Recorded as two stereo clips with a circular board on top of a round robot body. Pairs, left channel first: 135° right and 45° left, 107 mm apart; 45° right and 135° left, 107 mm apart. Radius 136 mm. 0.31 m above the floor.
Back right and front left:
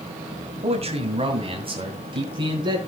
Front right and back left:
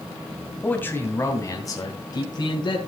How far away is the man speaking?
About 2.5 m.